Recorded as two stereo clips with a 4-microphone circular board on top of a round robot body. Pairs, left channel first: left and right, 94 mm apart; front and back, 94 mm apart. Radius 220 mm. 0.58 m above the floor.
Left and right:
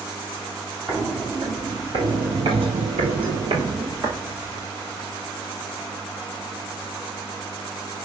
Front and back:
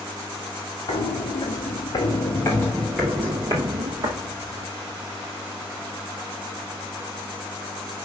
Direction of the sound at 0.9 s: 30° right.